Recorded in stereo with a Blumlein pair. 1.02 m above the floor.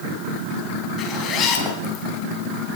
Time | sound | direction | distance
1.0 | a zipper | 30° left | 3.5 m